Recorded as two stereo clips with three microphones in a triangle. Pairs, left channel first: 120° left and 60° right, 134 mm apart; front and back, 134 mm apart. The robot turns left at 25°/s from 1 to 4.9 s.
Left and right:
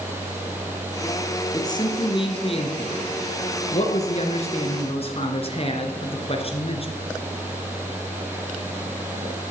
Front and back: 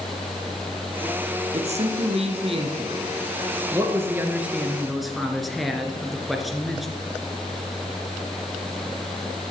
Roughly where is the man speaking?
Behind.